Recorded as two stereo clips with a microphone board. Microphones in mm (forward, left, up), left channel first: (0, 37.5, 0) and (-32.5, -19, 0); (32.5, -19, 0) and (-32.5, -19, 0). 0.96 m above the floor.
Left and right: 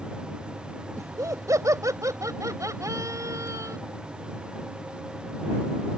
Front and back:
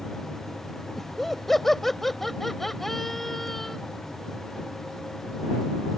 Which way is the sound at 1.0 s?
85° right.